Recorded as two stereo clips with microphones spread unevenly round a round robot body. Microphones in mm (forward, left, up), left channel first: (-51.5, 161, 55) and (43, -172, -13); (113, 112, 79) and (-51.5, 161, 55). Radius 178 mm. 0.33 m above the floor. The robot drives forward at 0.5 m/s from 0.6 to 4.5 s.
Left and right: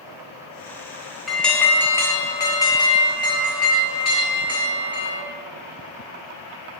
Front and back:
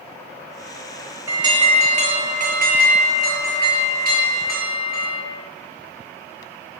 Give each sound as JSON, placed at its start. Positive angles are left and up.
{"t": 1.3, "sound": "an alarm", "azimuth_deg": -150, "distance_m": 0.6}